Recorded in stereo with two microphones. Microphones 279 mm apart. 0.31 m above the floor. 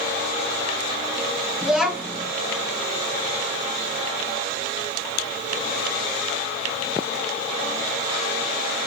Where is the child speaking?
5° right (ahead or behind), 1.2 m.